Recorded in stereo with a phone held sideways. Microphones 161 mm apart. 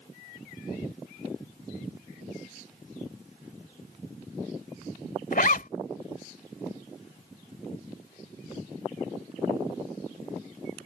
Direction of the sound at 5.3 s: 65° left (ahead or behind).